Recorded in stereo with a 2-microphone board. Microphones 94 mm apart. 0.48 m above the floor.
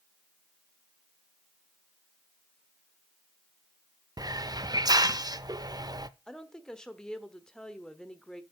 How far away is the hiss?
About 0.5 m.